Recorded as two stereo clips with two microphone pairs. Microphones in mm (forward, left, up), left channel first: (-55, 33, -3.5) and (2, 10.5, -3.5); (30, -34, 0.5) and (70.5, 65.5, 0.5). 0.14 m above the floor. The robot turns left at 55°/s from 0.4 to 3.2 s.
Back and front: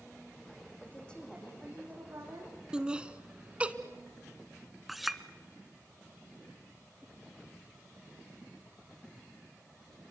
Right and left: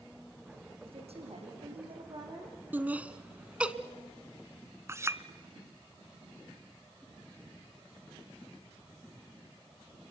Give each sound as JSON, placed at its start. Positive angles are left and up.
{"t": 0.8, "sound": "a woman speaking", "azimuth_deg": 100, "distance_m": 6.5}
{"t": 2.7, "sound": "laughter", "azimuth_deg": 40, "distance_m": 1.1}
{"t": 4.9, "sound": "a clink", "azimuth_deg": 70, "distance_m": 0.9}